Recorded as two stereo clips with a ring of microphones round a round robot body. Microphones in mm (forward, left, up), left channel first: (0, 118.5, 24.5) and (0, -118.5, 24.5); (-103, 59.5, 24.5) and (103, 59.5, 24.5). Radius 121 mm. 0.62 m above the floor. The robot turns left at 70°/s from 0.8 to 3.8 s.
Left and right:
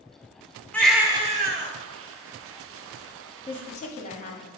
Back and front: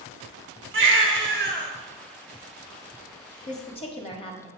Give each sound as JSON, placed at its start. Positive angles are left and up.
{"t": 0.7, "sound": "a baby crying", "azimuth_deg": 5, "distance_m": 1.0}
{"t": 3.5, "sound": "a woman speaking", "azimuth_deg": 155, "distance_m": 1.4}